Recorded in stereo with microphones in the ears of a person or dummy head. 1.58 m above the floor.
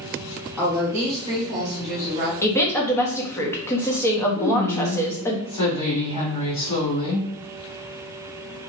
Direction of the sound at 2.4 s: 15° left (ahead or behind).